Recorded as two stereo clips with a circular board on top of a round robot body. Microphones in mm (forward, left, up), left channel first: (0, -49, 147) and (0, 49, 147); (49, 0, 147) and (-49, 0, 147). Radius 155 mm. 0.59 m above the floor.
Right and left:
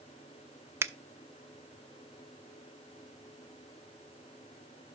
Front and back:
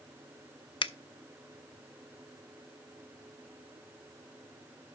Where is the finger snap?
25° left, 0.8 m.